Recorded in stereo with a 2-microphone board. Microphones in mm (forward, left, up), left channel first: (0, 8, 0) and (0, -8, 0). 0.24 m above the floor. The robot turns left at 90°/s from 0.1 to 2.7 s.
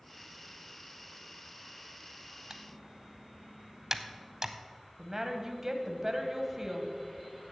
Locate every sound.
2.5 s typing on a keyboard: 35° right (ahead or behind), 0.6 m; by 4.5 s 25° right (ahead or behind), 0.6 m
5.0 s a woman speaking: 25° right (ahead or behind), 1.1 m